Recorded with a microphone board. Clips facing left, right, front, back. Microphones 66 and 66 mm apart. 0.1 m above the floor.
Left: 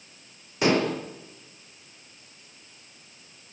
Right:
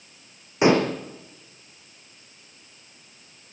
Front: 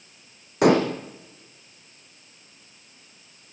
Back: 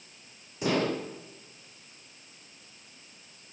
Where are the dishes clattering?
25° right, 3.5 m.